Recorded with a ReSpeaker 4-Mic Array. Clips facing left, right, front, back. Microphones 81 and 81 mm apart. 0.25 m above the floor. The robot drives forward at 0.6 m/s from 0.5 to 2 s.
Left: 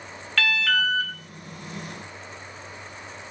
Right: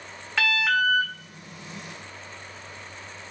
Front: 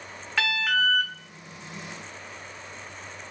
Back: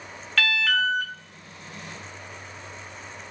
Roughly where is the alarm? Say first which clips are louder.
Right 1 dB, back 1 dB; ahead right.